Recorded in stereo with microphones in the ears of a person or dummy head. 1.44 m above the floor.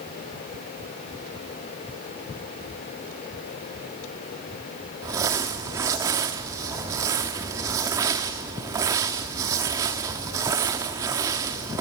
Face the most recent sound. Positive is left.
turn(degrees=-20)  # may be behind; listen again after turning